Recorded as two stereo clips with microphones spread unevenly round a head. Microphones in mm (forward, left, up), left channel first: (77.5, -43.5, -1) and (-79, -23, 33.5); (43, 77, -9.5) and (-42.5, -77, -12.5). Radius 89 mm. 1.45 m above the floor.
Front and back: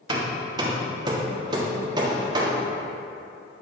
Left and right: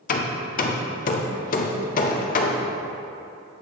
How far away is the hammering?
About 0.6 m.